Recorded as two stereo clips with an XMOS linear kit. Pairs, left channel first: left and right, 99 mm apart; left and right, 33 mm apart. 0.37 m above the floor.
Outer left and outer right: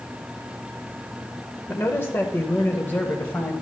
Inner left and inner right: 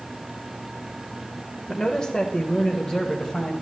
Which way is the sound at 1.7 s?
25° left (ahead or behind).